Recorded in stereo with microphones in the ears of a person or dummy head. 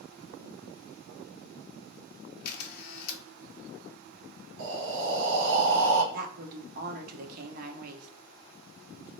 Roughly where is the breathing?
Right.